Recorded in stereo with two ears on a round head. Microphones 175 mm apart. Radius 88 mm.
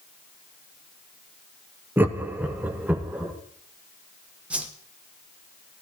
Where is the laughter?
10° right (ahead or behind), 0.7 m; by 3.3 s 5° right (ahead or behind), 1.6 m.